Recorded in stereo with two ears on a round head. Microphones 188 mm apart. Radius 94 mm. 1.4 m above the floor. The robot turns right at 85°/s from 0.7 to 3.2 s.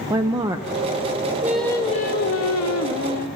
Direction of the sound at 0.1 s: 15° right (ahead or behind).